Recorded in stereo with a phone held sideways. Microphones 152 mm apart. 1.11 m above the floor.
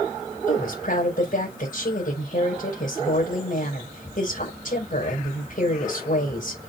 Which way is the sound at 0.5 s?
70° left (ahead or behind).